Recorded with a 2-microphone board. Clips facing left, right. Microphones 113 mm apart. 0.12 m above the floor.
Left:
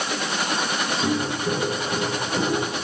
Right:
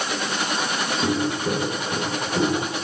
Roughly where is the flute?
No flute in this recording.